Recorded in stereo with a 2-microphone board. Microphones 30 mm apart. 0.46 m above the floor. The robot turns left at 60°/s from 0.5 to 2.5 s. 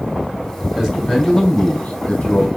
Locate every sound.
0.7 s a man speaking: 165° right, 2.0 m; by 2.5 s 90° left, 2.0 m